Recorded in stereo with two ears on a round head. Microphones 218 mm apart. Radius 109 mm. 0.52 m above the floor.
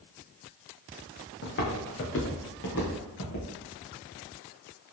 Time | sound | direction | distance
1.4 | footsteps | 50° left (ahead or behind) | 1.8 m